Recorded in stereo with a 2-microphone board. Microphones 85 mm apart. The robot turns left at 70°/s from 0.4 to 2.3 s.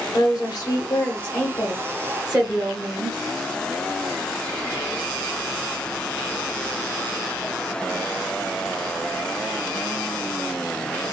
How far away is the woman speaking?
About 1.1 m.